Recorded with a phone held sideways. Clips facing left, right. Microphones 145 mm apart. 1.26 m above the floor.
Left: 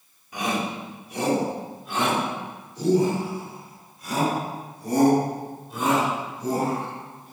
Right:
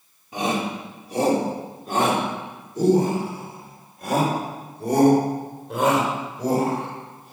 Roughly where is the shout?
Right.